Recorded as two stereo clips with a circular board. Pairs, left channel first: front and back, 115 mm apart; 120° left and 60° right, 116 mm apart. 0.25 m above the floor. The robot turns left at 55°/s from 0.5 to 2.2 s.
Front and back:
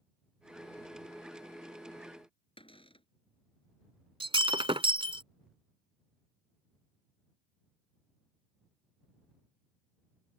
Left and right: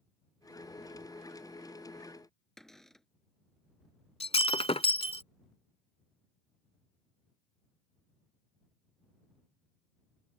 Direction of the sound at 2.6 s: 35° left.